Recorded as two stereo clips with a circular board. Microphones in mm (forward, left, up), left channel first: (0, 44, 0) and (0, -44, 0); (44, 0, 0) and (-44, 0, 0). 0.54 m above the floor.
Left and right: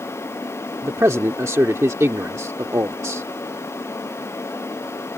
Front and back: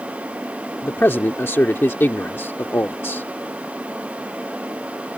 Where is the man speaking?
50° right.